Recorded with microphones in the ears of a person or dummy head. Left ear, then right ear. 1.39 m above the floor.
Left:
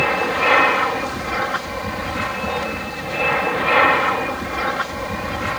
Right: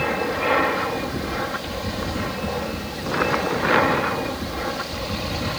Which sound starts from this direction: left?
An aircraft, at 0.0 s.